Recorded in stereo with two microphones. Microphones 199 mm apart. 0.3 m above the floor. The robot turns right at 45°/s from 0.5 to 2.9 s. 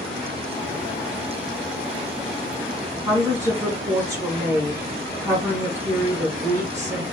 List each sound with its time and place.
3.0 s a woman speaking: 15° right (ahead or behind), 2.5 m